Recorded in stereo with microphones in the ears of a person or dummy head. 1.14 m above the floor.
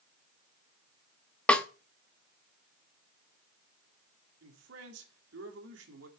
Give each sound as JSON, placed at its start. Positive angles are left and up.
{"t": 1.5, "sound": "a snare drum", "side_deg": 5, "distance_m": 0.8}
{"t": 4.4, "sound": "a man speaking", "side_deg": -80, "distance_m": 2.5}